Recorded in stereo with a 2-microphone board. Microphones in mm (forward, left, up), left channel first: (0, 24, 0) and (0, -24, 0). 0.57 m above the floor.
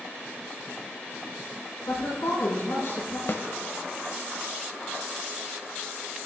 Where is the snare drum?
50° left (ahead or behind), 0.6 m.